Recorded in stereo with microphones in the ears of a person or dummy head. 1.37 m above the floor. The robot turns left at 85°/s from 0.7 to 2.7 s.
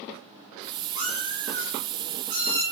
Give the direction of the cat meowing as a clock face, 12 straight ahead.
1 o'clock.